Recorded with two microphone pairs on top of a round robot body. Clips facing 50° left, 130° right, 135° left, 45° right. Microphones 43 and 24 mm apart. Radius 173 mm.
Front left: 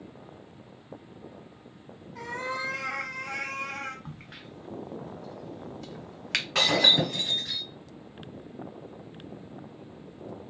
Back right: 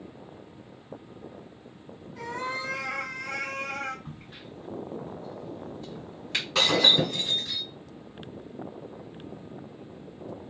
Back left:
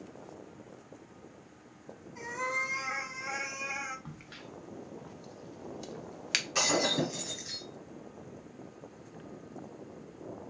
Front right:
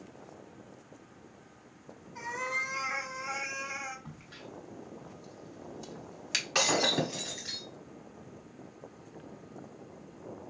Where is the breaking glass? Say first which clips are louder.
Back right 1 dB, front right 2 dB; 15° left, 1.0 m.